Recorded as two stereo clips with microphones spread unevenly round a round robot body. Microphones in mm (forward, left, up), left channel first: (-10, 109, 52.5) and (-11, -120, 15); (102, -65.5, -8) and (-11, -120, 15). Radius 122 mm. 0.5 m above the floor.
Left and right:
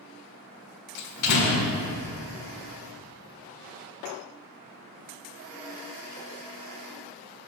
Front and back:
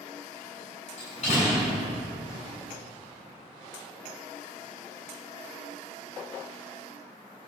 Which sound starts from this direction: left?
A door slam, at 1.0 s.